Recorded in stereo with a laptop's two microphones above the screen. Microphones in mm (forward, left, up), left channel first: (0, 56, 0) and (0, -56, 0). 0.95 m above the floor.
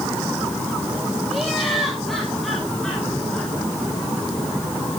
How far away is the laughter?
About 5 m.